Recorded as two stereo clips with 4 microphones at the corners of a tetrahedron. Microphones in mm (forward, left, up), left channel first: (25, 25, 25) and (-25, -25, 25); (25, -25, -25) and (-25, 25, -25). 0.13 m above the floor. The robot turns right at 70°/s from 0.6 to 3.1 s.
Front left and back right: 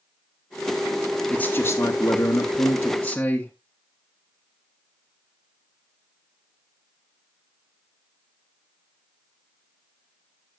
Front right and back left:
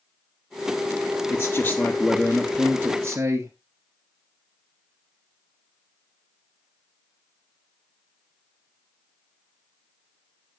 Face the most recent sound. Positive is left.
turn(degrees=110)